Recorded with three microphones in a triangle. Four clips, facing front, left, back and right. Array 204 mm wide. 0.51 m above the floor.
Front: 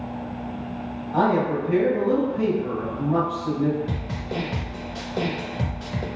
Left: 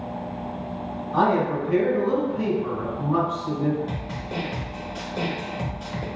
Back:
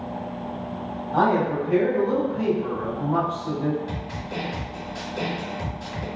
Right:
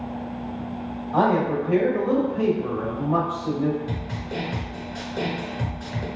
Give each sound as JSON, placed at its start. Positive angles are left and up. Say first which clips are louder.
{"t": 1.1, "sound": "a man speaking", "louder": "right 1 dB, even", "azimuth_deg": -90, "distance_m": 1.9}
{"t": 3.9, "sound": "a snare drum", "louder": "even, front 2 dB", "azimuth_deg": -10, "distance_m": 0.8}